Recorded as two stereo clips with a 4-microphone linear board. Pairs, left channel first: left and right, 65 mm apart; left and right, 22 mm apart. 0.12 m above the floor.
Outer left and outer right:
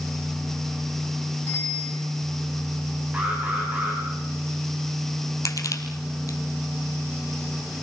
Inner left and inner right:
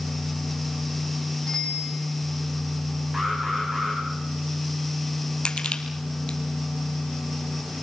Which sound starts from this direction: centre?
An alarm, at 3.1 s.